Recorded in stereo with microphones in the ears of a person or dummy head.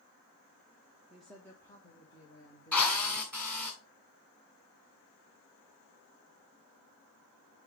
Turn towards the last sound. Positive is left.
turn(degrees=5)  # may be behind; listen again after turning